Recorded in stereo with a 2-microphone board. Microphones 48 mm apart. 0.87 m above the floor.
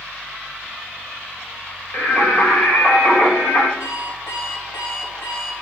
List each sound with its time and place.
1.9 s singing: 35° left (ahead or behind), 2.5 m
3.8 s an alarm clock: 75° left (ahead or behind), 3 m